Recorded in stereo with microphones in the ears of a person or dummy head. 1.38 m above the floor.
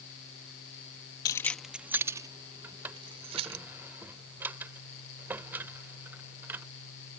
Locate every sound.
1.2 s keys jangling: 20° left (ahead or behind); by 3.6 s 40° right (ahead or behind)
2.6 s a drawer: 15° right (ahead or behind)